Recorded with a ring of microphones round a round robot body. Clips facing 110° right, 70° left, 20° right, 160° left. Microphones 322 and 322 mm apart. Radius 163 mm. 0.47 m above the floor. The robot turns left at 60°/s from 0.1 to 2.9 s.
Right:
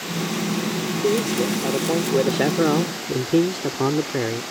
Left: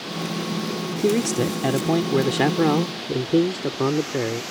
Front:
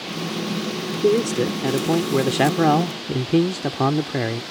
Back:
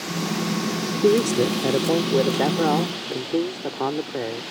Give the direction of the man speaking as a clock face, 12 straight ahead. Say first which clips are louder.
Left 1 dB, even; 9 o'clock.